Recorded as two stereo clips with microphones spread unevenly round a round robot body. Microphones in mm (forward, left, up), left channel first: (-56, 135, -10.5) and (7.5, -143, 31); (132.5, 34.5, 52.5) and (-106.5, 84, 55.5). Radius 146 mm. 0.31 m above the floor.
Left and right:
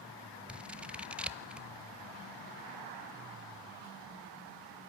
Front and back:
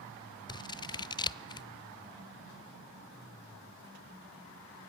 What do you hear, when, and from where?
0.5 s scissors: 25° left, 0.6 m